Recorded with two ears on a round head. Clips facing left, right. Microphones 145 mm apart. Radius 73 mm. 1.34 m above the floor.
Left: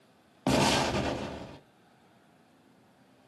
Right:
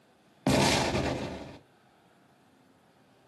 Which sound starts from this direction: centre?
An explosion, at 0.5 s.